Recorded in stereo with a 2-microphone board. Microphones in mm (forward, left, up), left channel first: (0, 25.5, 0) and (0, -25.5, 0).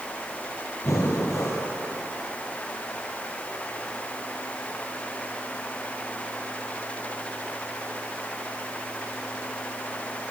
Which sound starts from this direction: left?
Breathing, at 0.8 s.